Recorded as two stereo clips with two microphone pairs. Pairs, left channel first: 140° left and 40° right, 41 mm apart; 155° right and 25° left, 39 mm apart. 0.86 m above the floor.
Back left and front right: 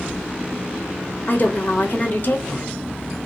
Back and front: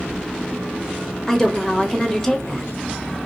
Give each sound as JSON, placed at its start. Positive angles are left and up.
{"t": 1.3, "sound": "a woman speaking", "azimuth_deg": 130, "distance_m": 0.9}